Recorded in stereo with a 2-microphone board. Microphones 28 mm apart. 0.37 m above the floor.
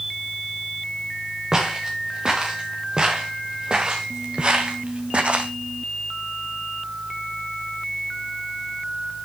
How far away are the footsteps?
About 3.5 m.